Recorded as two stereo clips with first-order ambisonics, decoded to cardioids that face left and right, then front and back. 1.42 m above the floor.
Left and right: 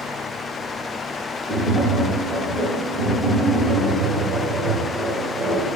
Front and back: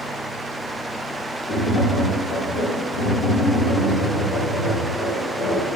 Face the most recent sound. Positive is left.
turn(degrees=-30)